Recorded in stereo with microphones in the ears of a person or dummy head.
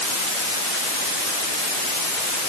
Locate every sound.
Only background noise.